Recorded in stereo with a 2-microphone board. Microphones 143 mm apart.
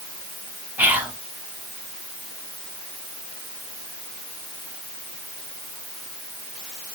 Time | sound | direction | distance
0.8 | whispering | 10° right (ahead or behind) | 1.1 m